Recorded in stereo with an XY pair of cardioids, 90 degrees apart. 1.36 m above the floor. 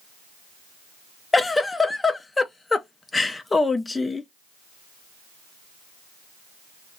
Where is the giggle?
25° left, 0.5 m.